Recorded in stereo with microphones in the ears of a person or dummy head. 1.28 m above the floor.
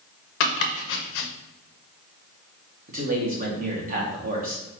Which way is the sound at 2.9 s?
45° right (ahead or behind).